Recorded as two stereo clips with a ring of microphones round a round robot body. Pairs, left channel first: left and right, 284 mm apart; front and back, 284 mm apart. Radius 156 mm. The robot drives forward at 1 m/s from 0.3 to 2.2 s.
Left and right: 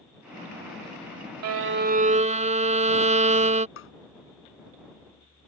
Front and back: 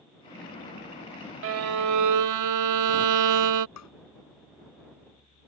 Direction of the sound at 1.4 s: 130° right.